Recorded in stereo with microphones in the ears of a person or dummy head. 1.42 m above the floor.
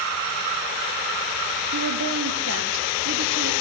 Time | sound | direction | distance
1.7 | a woman speaking | 65° right (ahead or behind) | 1.5 m